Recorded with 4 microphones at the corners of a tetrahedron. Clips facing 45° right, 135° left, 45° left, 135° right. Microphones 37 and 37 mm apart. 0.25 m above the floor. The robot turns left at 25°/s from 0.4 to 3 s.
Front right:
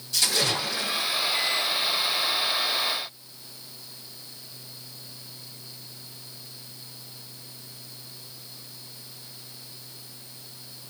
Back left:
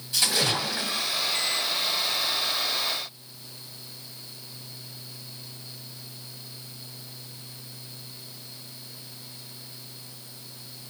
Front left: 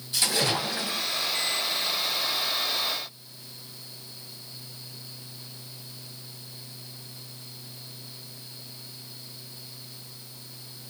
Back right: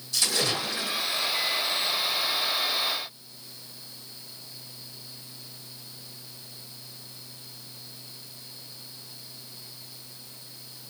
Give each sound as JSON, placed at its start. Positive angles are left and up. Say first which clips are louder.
{"t": 0.1, "sound": "a splash", "louder": "even, front left 1 dB", "azimuth_deg": 80, "distance_m": 1.1}